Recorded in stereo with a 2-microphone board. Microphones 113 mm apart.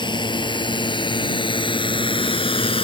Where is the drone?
45° left (ahead or behind); by 2.8 s 55° left (ahead or behind).